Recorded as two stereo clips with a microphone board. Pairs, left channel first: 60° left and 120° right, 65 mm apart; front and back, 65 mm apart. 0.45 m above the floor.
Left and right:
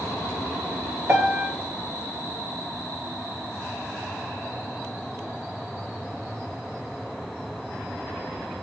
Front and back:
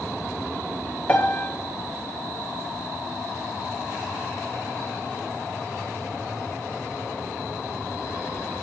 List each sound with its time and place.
1.1 s a piano: 65° right, 1.1 m